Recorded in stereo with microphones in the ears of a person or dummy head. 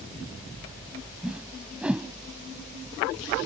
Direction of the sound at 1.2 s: 5° right (ahead or behind).